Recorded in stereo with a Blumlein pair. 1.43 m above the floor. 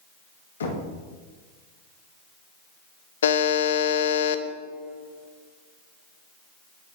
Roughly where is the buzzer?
Ahead left.